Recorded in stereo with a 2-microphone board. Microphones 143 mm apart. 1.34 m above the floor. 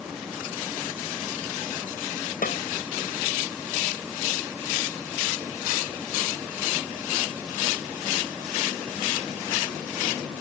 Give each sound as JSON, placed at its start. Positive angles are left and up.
{"t": 2.4, "sound": "a snare drum", "side_deg": 75}